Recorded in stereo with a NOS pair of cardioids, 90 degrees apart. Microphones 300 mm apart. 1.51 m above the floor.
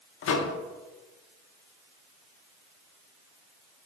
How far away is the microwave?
About 0.5 m.